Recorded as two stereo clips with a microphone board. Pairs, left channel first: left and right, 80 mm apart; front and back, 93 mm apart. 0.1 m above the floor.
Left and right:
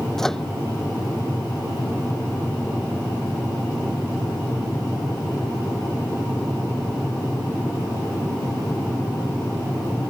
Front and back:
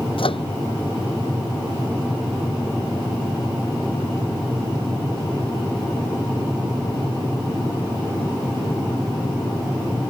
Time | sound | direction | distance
0.2 | a microwave | 5° left | ?